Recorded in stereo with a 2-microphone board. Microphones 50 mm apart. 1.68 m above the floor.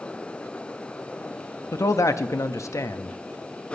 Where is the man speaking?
75° left (ahead or behind), 0.5 m.